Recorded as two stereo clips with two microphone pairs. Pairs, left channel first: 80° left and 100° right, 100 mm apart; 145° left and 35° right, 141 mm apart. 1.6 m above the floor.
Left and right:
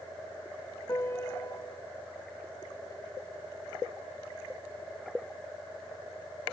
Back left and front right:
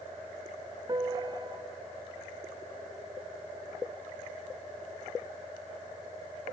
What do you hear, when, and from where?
0.9 s a piano: 20° left, 0.6 m